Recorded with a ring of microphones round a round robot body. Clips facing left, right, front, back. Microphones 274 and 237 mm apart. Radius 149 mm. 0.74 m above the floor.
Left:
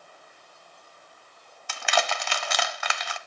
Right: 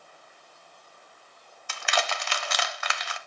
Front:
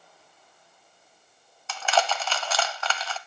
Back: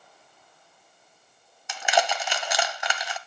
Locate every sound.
1.7 s crushing: 105° left, 1.1 m